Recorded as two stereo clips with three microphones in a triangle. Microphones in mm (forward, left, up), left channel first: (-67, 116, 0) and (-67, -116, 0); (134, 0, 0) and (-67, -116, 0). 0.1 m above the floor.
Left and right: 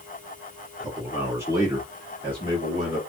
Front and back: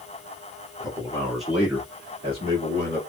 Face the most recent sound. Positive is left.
turn(degrees=-135)